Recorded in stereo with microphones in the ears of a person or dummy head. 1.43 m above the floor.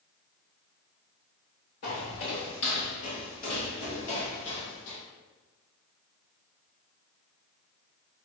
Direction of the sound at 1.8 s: 35° left (ahead or behind).